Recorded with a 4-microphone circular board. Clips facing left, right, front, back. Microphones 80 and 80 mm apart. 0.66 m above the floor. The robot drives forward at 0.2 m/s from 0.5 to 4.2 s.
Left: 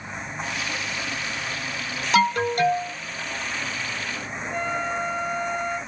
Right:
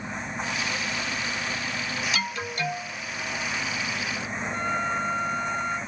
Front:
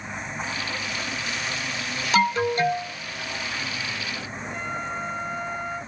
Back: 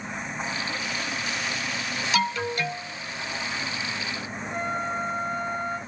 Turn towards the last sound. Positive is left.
turn(degrees=-135)